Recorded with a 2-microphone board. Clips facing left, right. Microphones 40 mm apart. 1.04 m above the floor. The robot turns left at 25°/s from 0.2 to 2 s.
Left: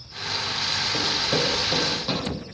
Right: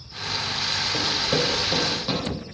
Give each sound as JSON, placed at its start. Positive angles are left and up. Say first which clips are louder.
{"t": 0.9, "sound": "running footsteps", "louder": "right 1 dB", "side_deg": -10, "distance_m": 1.4}